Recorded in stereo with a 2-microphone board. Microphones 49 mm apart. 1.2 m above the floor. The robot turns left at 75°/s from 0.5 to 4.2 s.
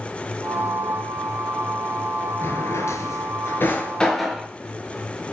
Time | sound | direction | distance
2.4 | a drawer | 40° left (ahead or behind) | 5 m